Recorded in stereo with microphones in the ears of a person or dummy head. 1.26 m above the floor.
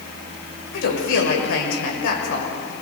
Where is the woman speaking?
75° left (ahead or behind), 6 m.